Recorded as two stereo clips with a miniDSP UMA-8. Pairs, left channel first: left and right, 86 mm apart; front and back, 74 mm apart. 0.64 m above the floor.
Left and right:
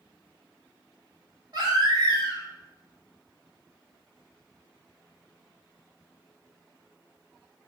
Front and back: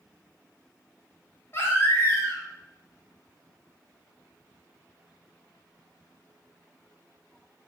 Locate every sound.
1.5 s a baby crying: 55° right, 1.4 m